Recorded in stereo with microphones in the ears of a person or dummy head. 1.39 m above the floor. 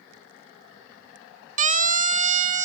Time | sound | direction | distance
1.6 | a siren | 35° right (ahead or behind) | ?